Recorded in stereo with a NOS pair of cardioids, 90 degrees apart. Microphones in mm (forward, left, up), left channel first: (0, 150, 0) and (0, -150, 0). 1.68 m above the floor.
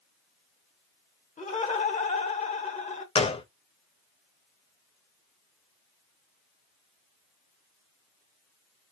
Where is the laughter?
20° left, 1.4 m.